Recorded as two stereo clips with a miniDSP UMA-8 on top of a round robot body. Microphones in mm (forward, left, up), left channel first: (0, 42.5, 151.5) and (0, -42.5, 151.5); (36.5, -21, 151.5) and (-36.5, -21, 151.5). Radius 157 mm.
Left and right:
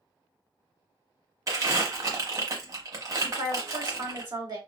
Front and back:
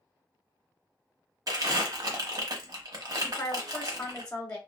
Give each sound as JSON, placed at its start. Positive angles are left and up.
{"t": 1.5, "sound": "crumpling", "azimuth_deg": -140, "distance_m": 0.9}
{"t": 3.2, "sound": "a woman speaking", "azimuth_deg": -65, "distance_m": 1.3}